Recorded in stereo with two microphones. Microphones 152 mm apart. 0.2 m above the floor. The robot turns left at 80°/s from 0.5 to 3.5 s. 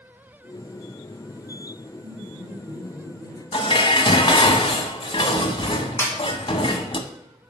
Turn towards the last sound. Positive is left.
turn(degrees=15)  # may be behind; listen again after turning